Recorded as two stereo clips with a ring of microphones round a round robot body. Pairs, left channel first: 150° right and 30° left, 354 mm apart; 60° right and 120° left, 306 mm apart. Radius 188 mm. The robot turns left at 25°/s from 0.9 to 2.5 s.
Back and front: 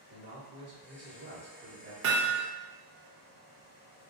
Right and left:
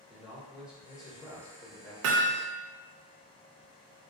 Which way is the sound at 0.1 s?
35° left.